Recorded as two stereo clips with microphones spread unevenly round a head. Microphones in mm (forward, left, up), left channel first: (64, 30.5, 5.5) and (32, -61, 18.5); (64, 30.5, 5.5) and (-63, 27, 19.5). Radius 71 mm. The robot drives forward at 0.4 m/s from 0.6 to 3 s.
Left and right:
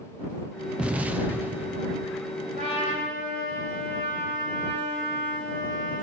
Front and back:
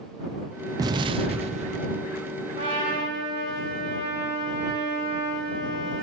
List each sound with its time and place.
0.8 s an explosion: 170° right, 0.5 m; by 2.0 s 175° right, 0.9 m
2.6 s a trumpet: 130° right, 4.5 m